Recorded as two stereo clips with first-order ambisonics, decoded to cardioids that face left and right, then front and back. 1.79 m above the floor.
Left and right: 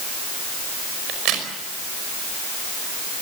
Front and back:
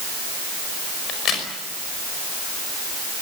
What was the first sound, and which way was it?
A crack, 55° right.